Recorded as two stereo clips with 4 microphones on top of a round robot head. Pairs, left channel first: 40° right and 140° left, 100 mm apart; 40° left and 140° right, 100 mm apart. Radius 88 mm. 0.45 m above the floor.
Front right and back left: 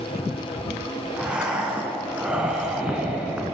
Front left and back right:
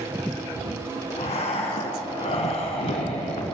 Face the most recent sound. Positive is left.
turn(degrees=60)